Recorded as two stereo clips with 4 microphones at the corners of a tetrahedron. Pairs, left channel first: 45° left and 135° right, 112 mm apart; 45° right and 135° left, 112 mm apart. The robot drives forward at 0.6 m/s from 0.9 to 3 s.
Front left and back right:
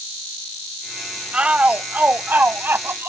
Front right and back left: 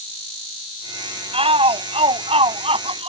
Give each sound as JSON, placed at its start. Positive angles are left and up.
{"t": 1.3, "sound": "a shout", "azimuth_deg": 145}